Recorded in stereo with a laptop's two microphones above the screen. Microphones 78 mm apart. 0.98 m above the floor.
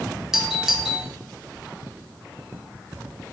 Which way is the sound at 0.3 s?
5° right (ahead or behind).